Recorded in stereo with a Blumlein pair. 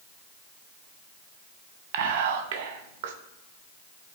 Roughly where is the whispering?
Ahead right.